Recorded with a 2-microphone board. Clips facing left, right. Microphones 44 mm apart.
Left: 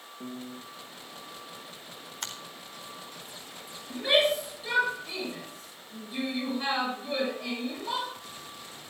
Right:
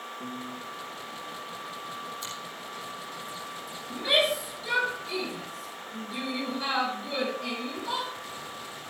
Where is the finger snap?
70° left (ahead or behind), 4 m.